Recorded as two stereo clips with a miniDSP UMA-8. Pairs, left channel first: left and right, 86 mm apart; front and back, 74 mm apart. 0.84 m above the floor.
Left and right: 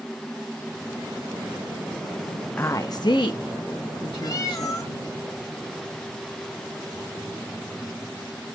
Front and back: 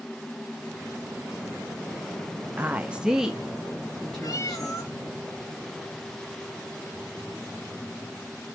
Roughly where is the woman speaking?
Behind left.